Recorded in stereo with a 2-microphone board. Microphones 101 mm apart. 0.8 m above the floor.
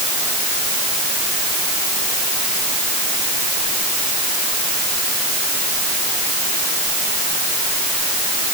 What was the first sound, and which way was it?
Only background noise.